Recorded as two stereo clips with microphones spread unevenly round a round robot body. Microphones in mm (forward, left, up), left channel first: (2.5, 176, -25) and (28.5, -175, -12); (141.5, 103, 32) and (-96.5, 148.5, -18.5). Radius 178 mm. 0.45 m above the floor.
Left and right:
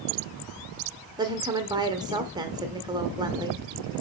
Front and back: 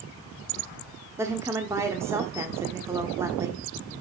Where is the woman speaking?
155° right, 1.1 m.